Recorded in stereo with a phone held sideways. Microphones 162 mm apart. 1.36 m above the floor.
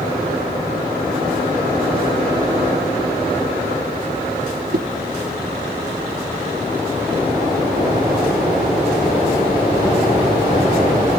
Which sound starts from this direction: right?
A whoosh, at 4.7 s.